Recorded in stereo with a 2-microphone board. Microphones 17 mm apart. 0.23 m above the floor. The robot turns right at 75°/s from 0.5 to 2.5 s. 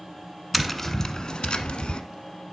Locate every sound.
0.5 s tapping: 5° right, 1.0 m; by 2.0 s 105° left, 1.0 m